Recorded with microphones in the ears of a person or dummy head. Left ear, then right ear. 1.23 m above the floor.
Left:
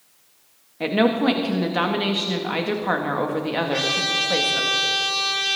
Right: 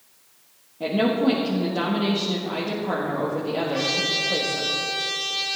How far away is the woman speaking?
About 1.3 m.